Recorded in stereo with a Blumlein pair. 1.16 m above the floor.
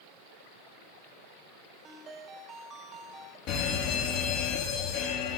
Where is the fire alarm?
40° left, 3.5 m.